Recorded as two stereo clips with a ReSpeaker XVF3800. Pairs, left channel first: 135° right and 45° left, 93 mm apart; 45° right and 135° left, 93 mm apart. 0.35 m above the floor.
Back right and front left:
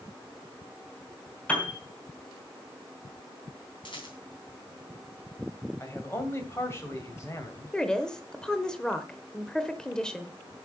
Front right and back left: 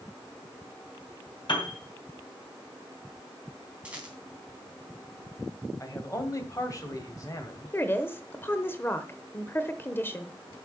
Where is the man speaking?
85° right, 2 m.